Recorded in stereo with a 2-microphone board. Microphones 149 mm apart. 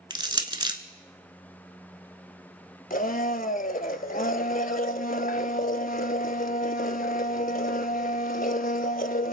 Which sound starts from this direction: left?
A blender, at 2.9 s.